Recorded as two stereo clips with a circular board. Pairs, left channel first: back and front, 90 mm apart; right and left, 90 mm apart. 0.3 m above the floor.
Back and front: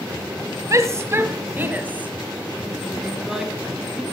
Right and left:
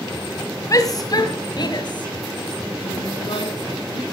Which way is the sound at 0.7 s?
45° right.